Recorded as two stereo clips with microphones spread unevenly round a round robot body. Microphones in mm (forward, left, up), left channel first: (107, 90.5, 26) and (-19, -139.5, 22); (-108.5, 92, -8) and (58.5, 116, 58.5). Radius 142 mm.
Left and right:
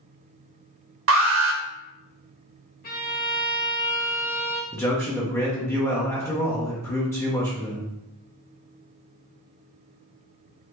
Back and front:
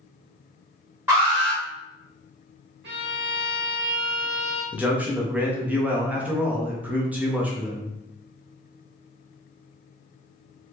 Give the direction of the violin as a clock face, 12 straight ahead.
12 o'clock.